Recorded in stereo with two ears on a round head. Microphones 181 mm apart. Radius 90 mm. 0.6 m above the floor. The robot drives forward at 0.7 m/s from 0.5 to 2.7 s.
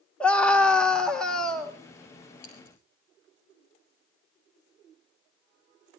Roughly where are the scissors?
Left.